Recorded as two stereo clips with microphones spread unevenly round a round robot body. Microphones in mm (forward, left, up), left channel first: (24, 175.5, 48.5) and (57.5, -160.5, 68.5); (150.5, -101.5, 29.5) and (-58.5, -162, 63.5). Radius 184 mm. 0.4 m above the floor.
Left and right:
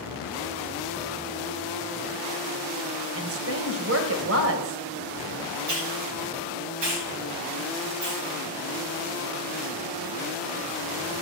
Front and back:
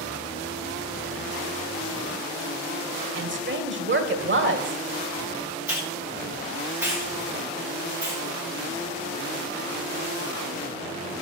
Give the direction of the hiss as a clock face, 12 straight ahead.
3 o'clock.